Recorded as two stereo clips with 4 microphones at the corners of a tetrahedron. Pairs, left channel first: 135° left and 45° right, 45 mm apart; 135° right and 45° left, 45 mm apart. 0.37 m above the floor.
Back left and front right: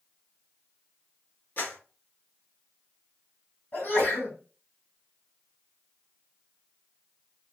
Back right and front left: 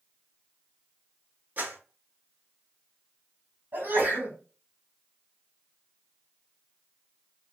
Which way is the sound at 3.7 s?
80° left.